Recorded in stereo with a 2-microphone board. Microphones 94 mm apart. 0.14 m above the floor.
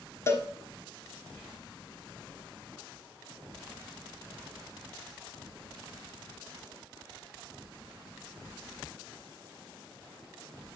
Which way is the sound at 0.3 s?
30° left (ahead or behind).